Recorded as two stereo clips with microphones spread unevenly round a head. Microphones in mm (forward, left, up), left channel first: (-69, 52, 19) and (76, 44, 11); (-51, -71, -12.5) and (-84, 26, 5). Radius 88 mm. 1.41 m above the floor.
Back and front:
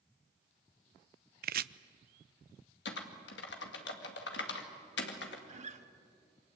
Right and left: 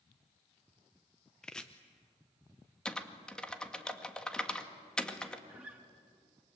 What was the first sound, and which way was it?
Chopping, 15° left.